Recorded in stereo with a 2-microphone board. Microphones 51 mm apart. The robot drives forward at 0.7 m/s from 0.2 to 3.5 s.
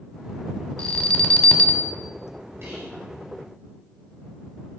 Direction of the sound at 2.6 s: 60° right (ahead or behind).